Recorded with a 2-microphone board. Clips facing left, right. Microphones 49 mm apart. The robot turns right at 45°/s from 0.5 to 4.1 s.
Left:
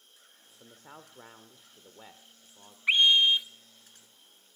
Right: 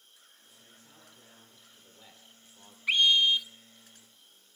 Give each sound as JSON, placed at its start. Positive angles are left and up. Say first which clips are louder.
{"t": 0.6, "sound": "a man speaking", "louder": "left 9 dB", "azimuth_deg": 75, "distance_m": 1.6}
{"t": 2.9, "sound": "a scream", "louder": "left 2 dB", "side_deg": 20, "distance_m": 1.0}